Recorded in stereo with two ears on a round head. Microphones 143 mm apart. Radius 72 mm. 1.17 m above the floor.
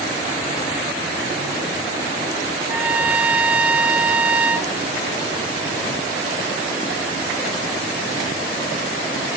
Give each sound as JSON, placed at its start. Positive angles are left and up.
{"t": 2.7, "sound": "a trumpet", "side_deg": -10, "distance_m": 0.7}